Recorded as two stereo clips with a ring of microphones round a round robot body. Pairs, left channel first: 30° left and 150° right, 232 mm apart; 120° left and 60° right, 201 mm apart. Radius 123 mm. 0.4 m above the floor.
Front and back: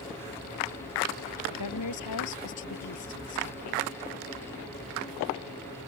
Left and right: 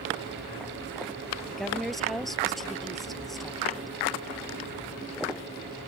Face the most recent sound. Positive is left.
turn(degrees=30)